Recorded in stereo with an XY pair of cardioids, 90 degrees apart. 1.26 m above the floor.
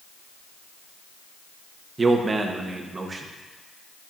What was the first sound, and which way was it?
A man speaking, 35° right.